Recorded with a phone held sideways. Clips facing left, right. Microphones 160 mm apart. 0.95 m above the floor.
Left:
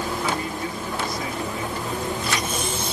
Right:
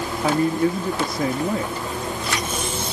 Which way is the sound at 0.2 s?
50° right (ahead or behind).